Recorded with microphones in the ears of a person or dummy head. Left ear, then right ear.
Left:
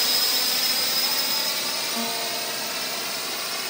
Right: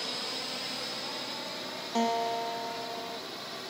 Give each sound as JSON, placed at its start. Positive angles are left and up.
{"t": 0.0, "sound": "a drone", "side_deg": 65}
{"t": 1.9, "sound": "a guitar", "side_deg": -55}